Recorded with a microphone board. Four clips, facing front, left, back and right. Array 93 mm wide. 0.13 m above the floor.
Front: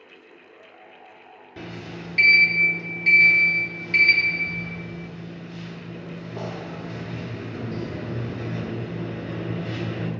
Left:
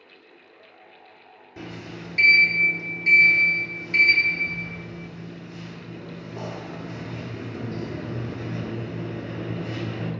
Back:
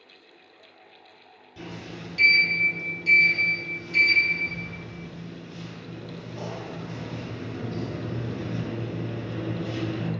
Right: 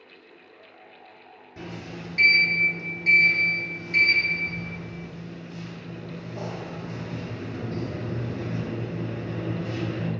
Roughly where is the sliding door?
Ahead.